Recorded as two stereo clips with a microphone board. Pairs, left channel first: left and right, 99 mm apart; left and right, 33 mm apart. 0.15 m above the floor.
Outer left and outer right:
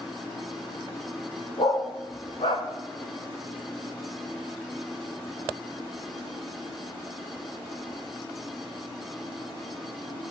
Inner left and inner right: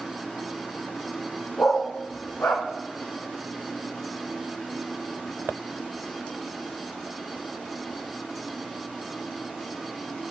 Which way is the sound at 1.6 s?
70° left (ahead or behind).